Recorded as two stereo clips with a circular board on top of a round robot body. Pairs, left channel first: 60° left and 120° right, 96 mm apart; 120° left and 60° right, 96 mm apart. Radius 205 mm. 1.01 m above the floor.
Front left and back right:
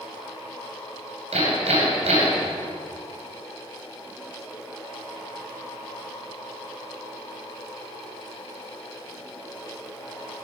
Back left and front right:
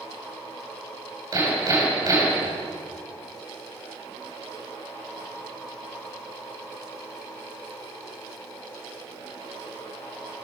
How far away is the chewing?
No chewing in this recording.